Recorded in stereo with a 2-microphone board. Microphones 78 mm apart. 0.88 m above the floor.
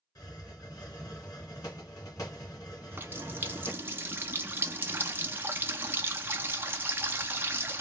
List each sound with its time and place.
0.1 s a hiss: 45° left (ahead or behind), 2 m
2.7 s a running tap: 25° right (ahead or behind), 0.6 m